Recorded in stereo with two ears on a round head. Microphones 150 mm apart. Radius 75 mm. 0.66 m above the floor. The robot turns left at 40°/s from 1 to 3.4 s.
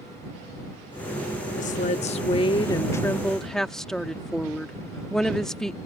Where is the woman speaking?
75° left; by 5.8 s 5° left.